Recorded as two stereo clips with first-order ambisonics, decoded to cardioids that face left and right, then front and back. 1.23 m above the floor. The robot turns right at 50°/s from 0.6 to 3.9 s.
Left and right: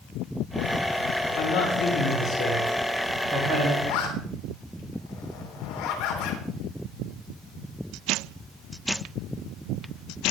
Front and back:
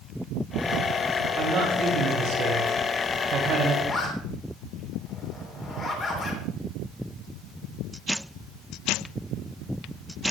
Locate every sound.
1.4 s a man speaking: 125° left, 8.5 m; by 3.7 s 115° right, 8.5 m
3.8 s a zipper: 60° left, 3.5 m; by 6.4 s 65° left, 3.5 m